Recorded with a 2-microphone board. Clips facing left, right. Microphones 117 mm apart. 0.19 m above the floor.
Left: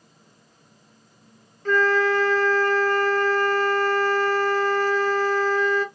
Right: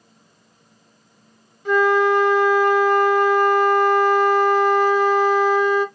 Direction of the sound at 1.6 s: 15° right (ahead or behind).